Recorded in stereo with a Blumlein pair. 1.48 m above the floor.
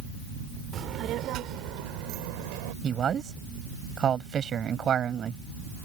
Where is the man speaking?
25° right.